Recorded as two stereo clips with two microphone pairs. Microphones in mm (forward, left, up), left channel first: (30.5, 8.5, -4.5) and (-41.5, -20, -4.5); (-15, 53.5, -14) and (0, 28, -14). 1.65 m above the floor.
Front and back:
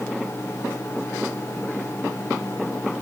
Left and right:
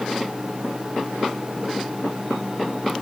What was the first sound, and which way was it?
Only background noise.